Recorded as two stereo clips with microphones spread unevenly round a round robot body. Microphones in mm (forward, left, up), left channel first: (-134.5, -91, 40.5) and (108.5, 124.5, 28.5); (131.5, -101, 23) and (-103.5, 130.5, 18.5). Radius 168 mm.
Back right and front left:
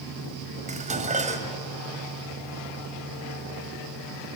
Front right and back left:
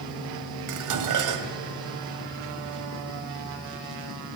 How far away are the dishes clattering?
About 1.5 m.